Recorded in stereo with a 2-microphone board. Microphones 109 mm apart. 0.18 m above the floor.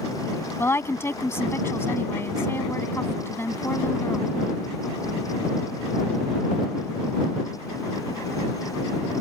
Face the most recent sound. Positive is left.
turn(degrees=25)  # may be behind; listen again after turning